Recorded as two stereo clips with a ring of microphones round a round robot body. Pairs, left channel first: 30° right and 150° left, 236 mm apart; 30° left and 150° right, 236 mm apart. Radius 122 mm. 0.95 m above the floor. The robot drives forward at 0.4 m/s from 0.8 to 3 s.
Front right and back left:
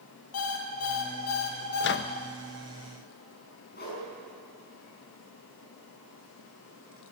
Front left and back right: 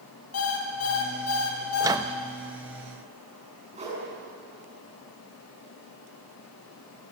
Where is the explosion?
No explosion in this recording.